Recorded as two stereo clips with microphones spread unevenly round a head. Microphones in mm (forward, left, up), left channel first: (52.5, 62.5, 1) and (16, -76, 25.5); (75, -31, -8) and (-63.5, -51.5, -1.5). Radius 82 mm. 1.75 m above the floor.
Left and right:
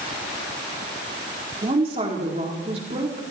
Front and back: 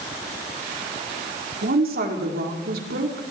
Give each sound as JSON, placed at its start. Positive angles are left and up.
{"t": 1.6, "sound": "a woman speaking", "azimuth_deg": -160, "distance_m": 4.5}